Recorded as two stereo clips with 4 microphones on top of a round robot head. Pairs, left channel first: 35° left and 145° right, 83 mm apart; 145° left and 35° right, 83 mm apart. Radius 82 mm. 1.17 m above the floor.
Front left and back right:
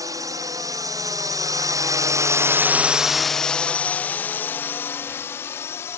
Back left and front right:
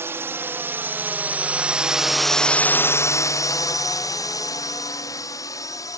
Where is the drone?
100° right; by 6.0 s 95° left.